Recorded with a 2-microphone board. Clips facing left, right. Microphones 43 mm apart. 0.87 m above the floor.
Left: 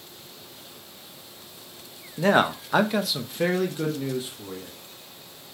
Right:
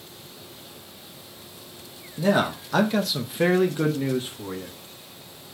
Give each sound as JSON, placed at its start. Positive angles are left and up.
{"t": 2.2, "sound": "a man speaking", "side_deg": 45, "distance_m": 0.9}